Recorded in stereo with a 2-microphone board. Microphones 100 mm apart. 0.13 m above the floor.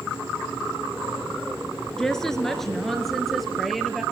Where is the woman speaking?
5° left (ahead or behind), 1.8 m; by 4.0 s centre (ahead or behind), 2.5 m.